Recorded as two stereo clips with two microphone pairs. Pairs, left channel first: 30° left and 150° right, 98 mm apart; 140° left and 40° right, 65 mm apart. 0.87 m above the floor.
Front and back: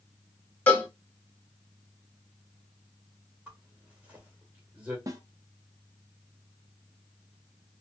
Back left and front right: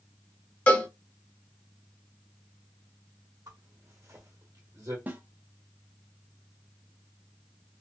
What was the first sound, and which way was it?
A cowbell, 90° left.